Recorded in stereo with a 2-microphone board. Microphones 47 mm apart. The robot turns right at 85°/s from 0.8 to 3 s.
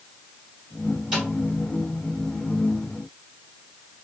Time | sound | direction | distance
1.1 | a snare drum | 5° right (ahead or behind) | 1.6 m